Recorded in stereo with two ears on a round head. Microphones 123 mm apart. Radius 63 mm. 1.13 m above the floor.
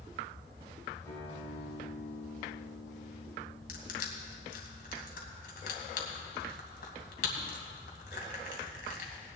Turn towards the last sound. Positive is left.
turn(degrees=70)  # may be behind; listen again after turning